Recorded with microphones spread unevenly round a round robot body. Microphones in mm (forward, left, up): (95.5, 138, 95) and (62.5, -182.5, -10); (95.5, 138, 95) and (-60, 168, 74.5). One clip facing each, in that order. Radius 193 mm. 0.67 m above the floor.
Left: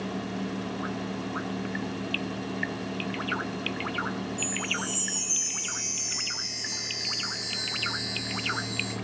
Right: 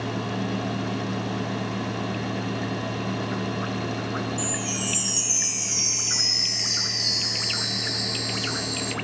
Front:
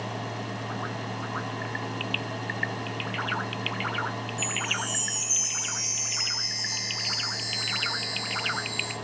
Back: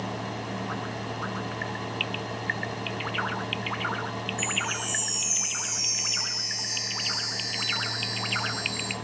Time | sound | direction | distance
4.4 | a chime | 65° right | 2 m